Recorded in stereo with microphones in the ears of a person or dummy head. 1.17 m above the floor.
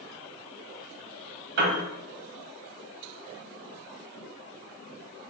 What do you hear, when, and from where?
1.6 s a piano: 65° right (ahead or behind), 1.7 m